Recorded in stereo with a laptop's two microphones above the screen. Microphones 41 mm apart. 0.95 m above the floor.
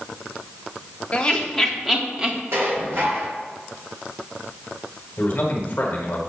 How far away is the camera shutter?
I don't hear a camera shutter.